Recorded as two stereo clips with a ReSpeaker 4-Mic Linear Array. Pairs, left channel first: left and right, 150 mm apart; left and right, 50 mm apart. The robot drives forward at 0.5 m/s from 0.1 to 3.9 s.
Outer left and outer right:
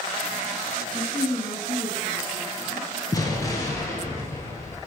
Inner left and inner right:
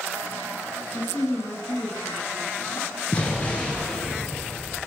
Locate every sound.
0.9 s a woman speaking: 35° left (ahead or behind), 2.5 m; by 2.9 s 50° left (ahead or behind), 2.0 m
3.1 s an explosion: 25° left (ahead or behind), 1.5 m; by 4.8 s 20° left (ahead or behind), 1.9 m